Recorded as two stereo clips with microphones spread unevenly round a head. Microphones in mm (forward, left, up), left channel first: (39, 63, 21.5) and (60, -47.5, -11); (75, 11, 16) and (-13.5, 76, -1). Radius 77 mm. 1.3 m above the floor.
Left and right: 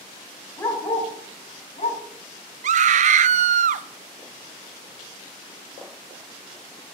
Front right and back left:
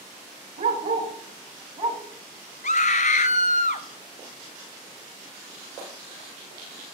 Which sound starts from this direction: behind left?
A dog barking, at 0.6 s.